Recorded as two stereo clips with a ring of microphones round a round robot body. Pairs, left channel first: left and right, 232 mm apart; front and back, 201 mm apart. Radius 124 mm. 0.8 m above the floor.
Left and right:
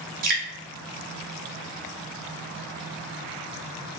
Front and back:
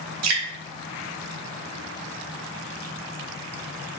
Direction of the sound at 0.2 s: 150° right.